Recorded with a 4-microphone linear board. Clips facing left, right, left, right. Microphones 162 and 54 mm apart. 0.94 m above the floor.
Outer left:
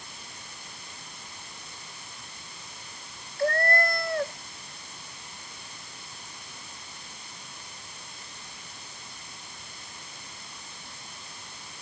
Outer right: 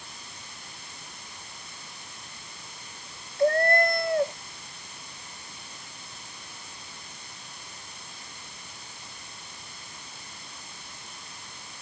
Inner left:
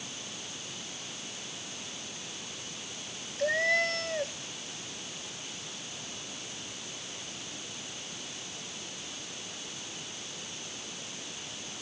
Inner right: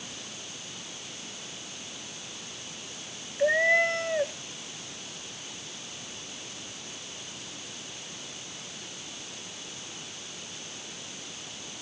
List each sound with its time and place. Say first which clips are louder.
3.4 s a cat meowing: outer right 4 dB, inner right 5 dB; 20° right (ahead or behind)